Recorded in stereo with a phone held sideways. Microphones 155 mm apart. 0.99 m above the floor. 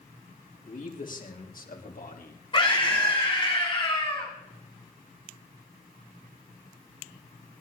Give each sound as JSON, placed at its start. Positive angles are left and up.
{"t": 0.7, "sound": "a man speaking", "side_deg": 60, "distance_m": 3.0}
{"t": 2.5, "sound": "a scream", "side_deg": 35, "distance_m": 7.0}